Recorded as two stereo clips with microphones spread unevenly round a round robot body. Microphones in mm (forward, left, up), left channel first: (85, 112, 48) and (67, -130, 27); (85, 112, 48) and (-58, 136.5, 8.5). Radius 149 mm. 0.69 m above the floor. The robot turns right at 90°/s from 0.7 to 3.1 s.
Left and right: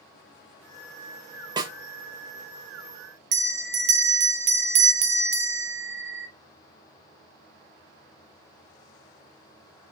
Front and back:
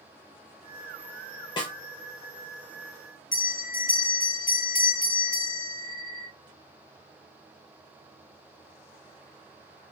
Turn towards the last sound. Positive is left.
turn(degrees=-55)